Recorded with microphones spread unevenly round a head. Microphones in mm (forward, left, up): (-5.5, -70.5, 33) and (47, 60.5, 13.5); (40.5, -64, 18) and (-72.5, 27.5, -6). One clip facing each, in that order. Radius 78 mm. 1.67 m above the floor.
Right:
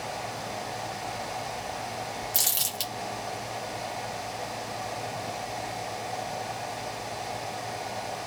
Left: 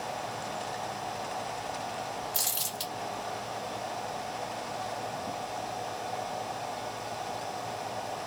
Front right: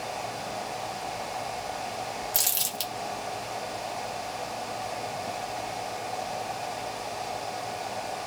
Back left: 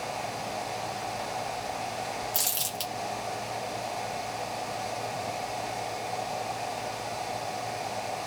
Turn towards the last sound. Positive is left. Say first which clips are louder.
# right 1 dB, even
turn(degrees=-90)